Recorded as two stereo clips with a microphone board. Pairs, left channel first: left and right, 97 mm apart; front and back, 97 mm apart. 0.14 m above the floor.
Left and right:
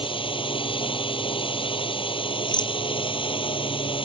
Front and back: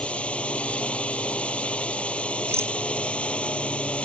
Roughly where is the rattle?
Behind left.